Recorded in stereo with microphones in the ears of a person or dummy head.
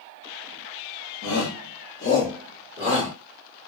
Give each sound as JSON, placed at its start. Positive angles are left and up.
{"t": 1.2, "sound": "a shout", "side_deg": 65, "distance_m": 1.0}